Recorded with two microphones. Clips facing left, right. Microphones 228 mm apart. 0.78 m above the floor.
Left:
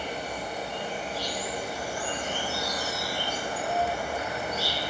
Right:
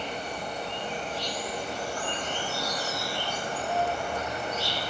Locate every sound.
0.0 s an insect: 10° left (ahead or behind), 0.9 m